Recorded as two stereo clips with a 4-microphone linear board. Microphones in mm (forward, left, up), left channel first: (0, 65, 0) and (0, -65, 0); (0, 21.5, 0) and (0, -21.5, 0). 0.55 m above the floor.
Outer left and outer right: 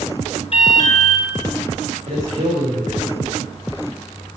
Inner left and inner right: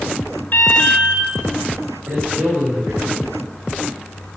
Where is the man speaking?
65° right (ahead or behind), 1.9 m.